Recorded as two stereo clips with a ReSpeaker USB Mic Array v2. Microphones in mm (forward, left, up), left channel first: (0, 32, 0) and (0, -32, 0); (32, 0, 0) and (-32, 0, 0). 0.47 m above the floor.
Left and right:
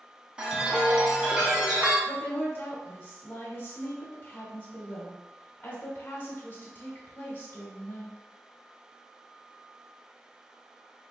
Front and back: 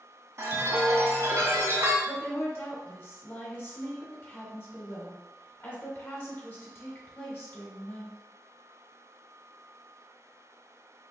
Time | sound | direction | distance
0.4 | a chime | 160° right | 0.5 m
2.0 | a woman speaking | 45° left | 1.1 m